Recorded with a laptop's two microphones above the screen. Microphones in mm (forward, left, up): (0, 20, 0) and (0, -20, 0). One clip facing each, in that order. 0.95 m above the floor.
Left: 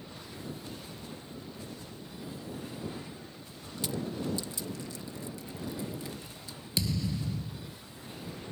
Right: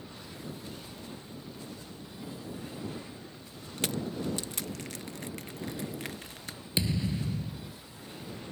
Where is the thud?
25° right (ahead or behind).